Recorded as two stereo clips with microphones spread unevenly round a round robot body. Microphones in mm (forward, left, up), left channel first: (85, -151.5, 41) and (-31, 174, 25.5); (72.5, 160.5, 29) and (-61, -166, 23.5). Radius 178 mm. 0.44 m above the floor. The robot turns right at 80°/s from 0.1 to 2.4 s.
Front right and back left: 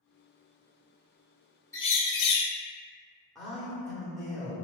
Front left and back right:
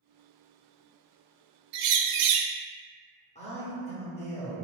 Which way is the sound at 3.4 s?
25° left.